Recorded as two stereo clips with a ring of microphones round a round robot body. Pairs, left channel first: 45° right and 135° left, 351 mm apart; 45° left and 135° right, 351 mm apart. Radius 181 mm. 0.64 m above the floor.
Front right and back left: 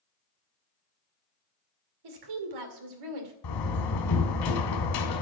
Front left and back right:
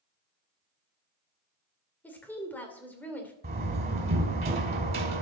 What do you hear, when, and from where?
2.0 s a woman speaking: 130° left, 2 m
3.4 s a door slam: 70° right, 2 m